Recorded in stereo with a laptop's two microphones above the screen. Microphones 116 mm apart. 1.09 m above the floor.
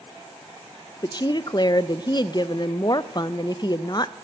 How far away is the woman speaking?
About 0.6 m.